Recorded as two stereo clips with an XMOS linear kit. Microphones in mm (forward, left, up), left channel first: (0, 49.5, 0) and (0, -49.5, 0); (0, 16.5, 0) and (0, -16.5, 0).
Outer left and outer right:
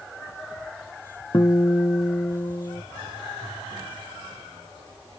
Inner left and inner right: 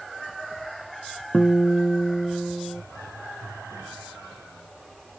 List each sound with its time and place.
1.3 s a guitar: 40° left (ahead or behind)